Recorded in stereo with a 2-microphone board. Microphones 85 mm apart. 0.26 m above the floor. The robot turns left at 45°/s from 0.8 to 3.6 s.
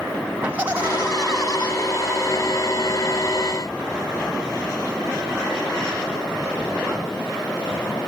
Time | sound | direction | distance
0.4 | laughter | 160° right | 1.5 m